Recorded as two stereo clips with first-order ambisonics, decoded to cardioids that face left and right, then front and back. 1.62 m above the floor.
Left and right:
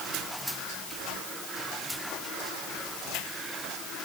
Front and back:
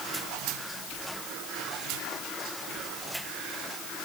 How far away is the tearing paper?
No tearing paper in this recording.